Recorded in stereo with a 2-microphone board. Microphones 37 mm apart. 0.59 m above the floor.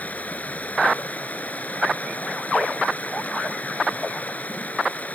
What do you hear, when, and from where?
0.0 s running water: 45° left (ahead or behind)